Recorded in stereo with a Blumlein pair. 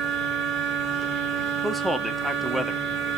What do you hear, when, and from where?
0.0 s a machine running: 25° right, 3.5 m
1.6 s a man speaking: straight ahead, 2 m